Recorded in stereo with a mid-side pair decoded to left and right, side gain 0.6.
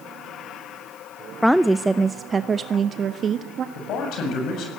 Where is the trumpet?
No trumpet in this recording.